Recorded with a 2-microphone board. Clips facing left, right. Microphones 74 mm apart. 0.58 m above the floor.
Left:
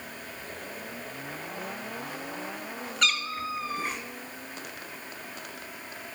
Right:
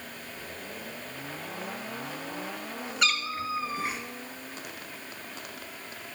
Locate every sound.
3.0 s a cat meowing: 5° right (ahead or behind), 1.5 m